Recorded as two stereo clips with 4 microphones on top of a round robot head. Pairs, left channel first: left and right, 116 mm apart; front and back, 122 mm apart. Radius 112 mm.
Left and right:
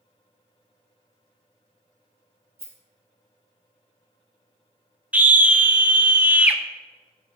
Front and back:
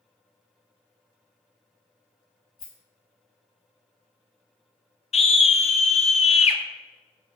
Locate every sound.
2.6 s a rattle: 20° right, 1.4 m
5.1 s a scream: 15° right, 0.9 m